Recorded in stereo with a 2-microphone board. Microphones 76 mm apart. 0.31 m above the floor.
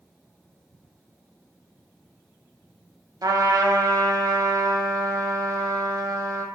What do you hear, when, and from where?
3.2 s a trumpet: 60° right (ahead or behind), 0.5 m